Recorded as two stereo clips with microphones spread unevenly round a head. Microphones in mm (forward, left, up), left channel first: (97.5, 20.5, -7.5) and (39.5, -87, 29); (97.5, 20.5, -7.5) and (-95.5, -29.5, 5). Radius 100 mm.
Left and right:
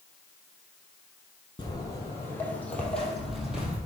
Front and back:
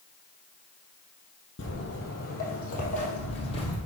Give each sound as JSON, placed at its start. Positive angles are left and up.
{"t": 1.6, "sound": "footsteps", "azimuth_deg": -5, "distance_m": 2.5}